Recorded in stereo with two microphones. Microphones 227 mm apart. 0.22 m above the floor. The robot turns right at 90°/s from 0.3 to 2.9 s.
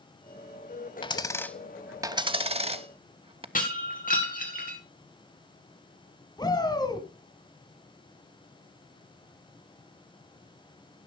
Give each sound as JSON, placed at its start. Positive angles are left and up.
{"t": 1.0, "sound": "a dropped coin", "side_deg": 20, "distance_m": 0.5}
{"t": 3.5, "sound": "breaking glass", "side_deg": 35, "distance_m": 2.5}
{"t": 6.4, "sound": "a shout", "side_deg": 20, "distance_m": 1.8}